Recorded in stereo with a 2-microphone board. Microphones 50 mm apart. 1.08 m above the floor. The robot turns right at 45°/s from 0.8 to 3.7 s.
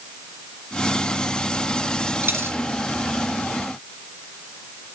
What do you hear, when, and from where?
2.2 s a dropped coin: 50° right (ahead or behind), 1.5 m; by 2.6 s 55° right (ahead or behind), 1.5 m